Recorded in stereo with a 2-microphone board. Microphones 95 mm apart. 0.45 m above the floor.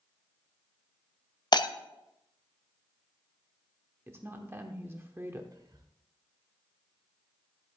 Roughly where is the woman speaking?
Right.